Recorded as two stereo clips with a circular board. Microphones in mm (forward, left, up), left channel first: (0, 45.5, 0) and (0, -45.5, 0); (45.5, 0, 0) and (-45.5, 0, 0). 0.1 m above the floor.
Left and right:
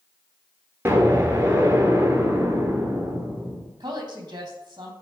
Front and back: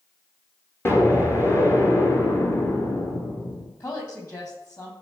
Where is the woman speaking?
50° right, 4.5 m.